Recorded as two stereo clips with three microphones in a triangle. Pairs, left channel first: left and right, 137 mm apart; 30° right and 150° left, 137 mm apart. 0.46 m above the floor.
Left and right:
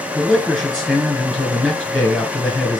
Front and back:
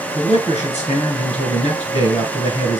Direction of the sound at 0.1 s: 5° left.